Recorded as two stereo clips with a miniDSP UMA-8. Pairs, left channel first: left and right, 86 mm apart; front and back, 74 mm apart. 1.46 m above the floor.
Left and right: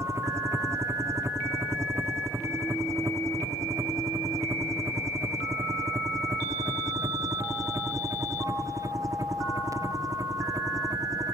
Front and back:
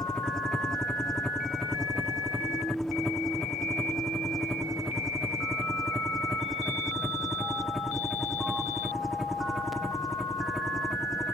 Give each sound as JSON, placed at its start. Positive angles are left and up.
{"t": 0.0, "sound": "a helicopter", "azimuth_deg": -75}